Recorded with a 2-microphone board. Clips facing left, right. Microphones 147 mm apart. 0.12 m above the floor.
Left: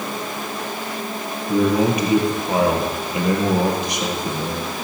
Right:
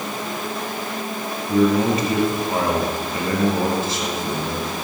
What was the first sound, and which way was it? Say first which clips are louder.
A man speaking: even; 15° left (ahead or behind).